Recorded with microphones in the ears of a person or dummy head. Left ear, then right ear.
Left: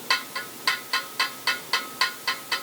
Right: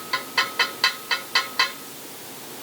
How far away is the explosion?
No explosion in this recording.